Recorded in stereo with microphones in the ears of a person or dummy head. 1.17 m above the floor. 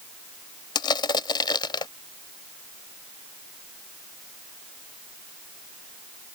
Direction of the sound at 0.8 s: 25° left (ahead or behind).